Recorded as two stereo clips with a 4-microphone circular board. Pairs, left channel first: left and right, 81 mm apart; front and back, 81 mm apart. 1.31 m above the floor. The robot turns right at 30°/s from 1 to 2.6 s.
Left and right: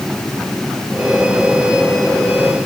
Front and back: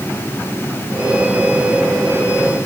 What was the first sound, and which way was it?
Only background noise.